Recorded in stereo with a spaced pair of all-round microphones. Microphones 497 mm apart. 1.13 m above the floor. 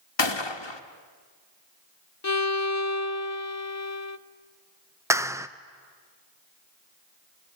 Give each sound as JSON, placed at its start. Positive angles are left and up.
{"t": 0.2, "sound": "a gunshot", "side_deg": 65, "distance_m": 1.1}
{"t": 2.2, "sound": "a violin", "side_deg": 35, "distance_m": 0.6}
{"t": 5.1, "sound": "a clap", "side_deg": -5, "distance_m": 0.5}